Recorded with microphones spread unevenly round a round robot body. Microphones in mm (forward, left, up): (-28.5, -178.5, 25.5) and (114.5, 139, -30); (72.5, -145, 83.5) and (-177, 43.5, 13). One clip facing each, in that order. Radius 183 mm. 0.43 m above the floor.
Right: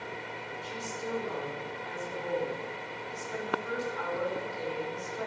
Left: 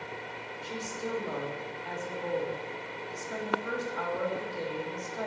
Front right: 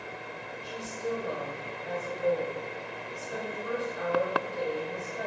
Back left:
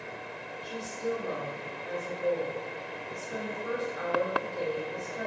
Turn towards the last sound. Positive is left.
turn(degrees=65)